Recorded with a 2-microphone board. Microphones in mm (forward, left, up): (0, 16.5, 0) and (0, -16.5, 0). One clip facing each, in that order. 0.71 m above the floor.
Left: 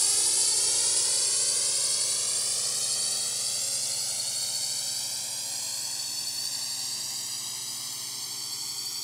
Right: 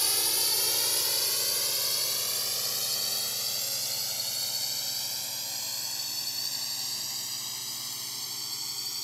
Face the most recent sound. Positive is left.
turn(degrees=-5)  # may be behind; listen again after turning